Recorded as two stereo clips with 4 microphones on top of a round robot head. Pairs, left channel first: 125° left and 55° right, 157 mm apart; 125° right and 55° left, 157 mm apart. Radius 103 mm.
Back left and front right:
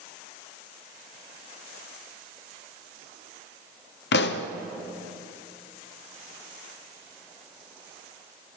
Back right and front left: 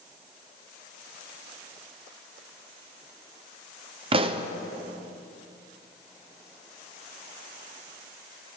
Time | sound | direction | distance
4.1 | a pop | 110° left | 0.7 m